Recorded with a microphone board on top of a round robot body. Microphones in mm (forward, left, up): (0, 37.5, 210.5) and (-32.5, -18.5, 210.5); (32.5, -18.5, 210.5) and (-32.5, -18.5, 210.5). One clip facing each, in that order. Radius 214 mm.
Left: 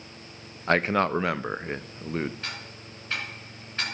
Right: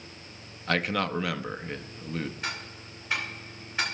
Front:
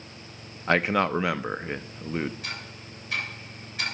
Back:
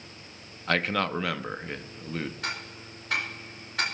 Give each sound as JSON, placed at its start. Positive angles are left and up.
{"t": 0.7, "sound": "a man speaking", "azimuth_deg": 50, "distance_m": 0.7}
{"t": 2.4, "sound": "ticking", "azimuth_deg": 165, "distance_m": 2.0}